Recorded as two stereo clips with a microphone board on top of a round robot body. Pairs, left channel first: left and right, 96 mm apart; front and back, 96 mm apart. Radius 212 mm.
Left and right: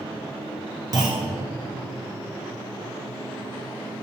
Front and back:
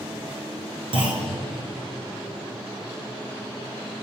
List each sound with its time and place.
0.9 s a clunk: 145° right, 1.8 m